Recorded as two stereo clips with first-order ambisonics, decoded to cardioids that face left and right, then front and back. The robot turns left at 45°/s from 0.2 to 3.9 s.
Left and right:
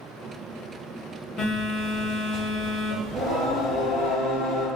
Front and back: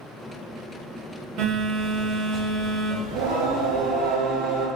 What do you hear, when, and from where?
1.4 s a phone buzzing: 155° left, 0.7 m; by 4.0 s 45° left, 0.7 m
3.0 s singing: 175° left, 0.6 m; by 4.7 s 135° left, 0.6 m